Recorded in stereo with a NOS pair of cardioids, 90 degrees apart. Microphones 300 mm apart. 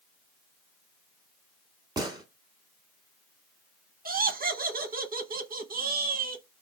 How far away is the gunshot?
About 1.0 m.